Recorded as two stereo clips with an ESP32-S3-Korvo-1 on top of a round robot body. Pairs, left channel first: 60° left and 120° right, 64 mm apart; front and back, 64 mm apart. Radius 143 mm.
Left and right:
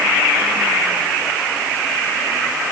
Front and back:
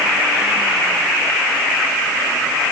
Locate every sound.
Only background noise.